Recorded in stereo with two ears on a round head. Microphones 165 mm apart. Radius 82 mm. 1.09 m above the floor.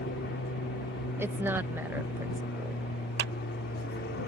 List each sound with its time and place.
0.0 s an aircraft: 55° left (ahead or behind)
1.2 s a woman speaking: 10° right (ahead or behind)
3.2 s a clap: 60° right (ahead or behind)